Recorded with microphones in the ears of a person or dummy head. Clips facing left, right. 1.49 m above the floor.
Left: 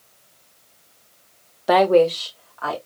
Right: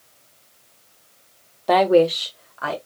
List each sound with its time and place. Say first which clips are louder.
1.7 s a woman speaking: even; 10° left (ahead or behind), 0.6 m; by 2.8 s 40° right (ahead or behind), 1.2 m